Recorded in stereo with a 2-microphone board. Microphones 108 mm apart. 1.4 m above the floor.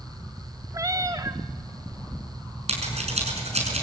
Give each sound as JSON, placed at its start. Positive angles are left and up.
{"t": 0.7, "sound": "a cat meowing", "side_deg": -35, "distance_m": 1.1}
{"t": 2.7, "sound": "scissors", "side_deg": -80, "distance_m": 5.5}